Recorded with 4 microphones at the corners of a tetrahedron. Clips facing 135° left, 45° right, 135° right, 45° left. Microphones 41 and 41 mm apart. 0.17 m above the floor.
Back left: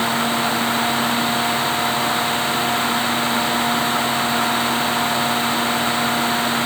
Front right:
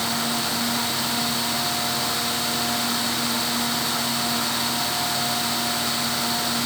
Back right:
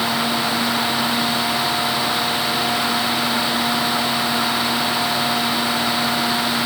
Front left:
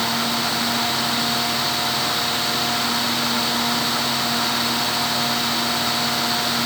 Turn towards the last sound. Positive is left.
No sound to turn to.